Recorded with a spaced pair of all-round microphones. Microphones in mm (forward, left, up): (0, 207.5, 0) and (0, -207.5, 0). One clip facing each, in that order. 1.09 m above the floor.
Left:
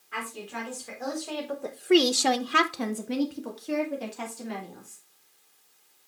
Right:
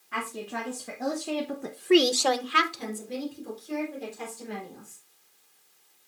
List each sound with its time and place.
0.1 s a woman speaking: 60° right (ahead or behind), 2.5 m; by 5.0 s 80° left, 3.5 m